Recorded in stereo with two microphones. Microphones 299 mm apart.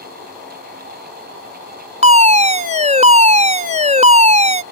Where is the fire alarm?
25° right (ahead or behind).